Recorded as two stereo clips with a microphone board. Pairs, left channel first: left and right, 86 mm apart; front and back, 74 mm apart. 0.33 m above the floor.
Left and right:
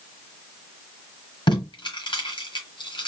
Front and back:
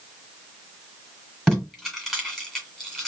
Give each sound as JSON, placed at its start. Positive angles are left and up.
{"t": 1.5, "sound": "tape being pulled", "azimuth_deg": 85, "distance_m": 1.8}